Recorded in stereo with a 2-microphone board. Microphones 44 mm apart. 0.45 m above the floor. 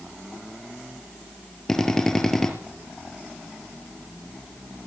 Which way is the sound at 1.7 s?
10° left (ahead or behind).